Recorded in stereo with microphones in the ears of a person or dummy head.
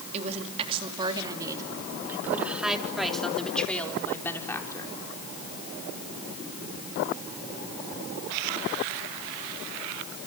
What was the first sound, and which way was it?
A woman speaking, 40° right (ahead or behind).